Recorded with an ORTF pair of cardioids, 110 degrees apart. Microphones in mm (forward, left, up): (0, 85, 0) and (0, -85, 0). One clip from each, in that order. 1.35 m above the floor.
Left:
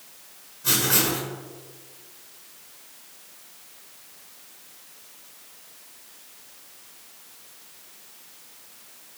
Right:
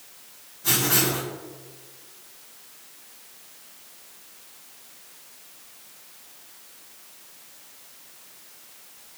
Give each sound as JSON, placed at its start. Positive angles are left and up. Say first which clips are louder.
{"t": 0.6, "sound": "writing", "louder": "even", "azimuth_deg": 0, "distance_m": 1.1}